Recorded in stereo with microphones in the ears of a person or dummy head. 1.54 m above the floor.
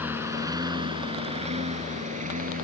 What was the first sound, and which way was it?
A lawn mower, 10° right (ahead or behind).